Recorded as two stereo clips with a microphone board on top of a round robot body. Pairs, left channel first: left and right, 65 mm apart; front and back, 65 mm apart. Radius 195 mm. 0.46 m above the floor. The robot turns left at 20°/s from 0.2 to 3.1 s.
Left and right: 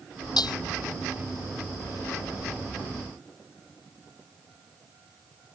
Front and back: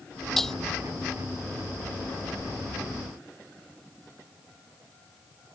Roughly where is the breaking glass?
Left.